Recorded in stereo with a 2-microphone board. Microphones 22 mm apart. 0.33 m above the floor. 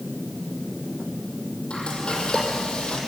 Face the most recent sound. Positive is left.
turn(degrees=65)  # may be behind; listen again after turning